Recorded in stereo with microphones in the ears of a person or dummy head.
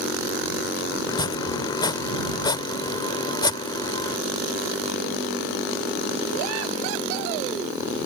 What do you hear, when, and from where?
1.1 s chopping: 20° left (ahead or behind)